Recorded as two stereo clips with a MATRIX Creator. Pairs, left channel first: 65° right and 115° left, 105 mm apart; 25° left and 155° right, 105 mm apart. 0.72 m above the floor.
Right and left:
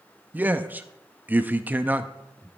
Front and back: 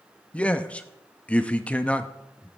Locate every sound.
0.3 s a man speaking: 75° left, 0.5 m